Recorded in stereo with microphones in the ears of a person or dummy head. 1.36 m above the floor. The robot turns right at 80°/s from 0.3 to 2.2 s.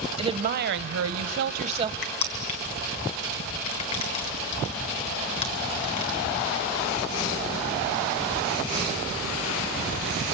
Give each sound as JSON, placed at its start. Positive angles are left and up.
{"t": 0.2, "sound": "a woman speaking", "azimuth_deg": -150, "distance_m": 1.0}
{"t": 2.0, "sound": "crushing", "side_deg": 40, "distance_m": 1.7}